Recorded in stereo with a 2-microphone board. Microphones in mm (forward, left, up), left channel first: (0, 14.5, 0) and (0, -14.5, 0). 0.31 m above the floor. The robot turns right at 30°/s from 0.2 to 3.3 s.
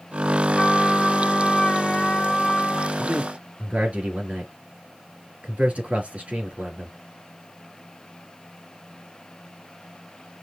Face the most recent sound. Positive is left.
turn(degrees=-50)  # may be behind; listen again after turning